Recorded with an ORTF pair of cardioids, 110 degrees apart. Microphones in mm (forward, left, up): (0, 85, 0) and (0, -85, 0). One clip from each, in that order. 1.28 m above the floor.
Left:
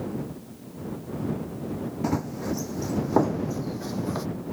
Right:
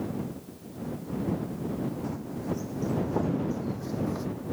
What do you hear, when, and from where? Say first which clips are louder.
2.0 s running footsteps: left 6 dB; 70° left; by 4.3 s 40° left